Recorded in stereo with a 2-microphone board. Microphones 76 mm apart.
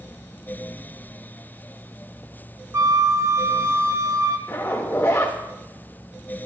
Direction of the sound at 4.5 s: 35° left (ahead or behind).